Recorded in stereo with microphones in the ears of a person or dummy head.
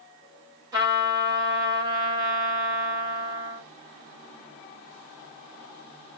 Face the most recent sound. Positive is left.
turn(degrees=-15)  # may be behind; listen again after turning